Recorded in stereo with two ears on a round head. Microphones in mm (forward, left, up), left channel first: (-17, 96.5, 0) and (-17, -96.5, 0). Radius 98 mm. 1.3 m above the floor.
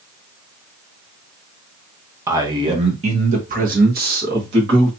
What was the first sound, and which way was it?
A man speaking, 10° right (ahead or behind).